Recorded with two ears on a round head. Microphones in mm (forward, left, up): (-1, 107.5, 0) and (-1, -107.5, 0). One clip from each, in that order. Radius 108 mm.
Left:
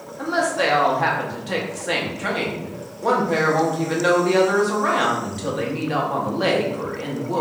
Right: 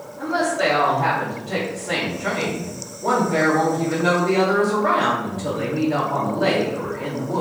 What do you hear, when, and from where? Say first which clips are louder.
0.2 s a woman speaking: even; 55° left (ahead or behind), 0.9 m